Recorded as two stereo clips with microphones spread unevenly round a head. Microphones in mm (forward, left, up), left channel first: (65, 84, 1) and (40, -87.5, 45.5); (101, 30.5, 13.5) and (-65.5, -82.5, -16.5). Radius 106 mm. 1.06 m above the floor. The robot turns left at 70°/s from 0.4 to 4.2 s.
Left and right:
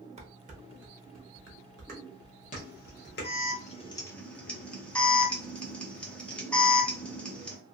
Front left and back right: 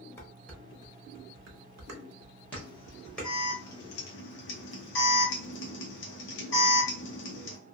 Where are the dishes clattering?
45° right, 0.8 m; by 3.3 s 110° left, 0.8 m.